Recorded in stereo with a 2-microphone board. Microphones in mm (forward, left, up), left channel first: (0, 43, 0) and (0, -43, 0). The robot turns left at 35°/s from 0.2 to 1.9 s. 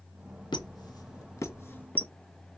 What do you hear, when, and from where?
0.5 s a squeak: 65° left (ahead or behind), 0.6 m; by 2.1 s 20° left (ahead or behind), 0.6 m